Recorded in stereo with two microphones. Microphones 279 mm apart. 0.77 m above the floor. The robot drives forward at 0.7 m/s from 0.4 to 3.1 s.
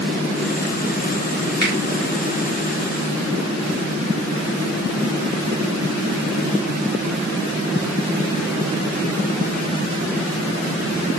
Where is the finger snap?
65° left (ahead or behind), 3 m.